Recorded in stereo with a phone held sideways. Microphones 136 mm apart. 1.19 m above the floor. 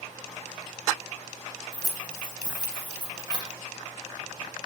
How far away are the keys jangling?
About 0.8 m.